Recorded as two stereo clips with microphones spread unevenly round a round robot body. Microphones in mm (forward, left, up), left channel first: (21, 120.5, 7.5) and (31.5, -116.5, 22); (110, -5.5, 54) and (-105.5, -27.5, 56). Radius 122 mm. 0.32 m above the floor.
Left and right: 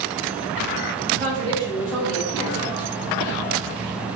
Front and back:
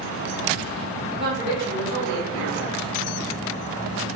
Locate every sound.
1.1 s a woman speaking: 130° right, 1.7 m; by 2.9 s 130° left, 1.9 m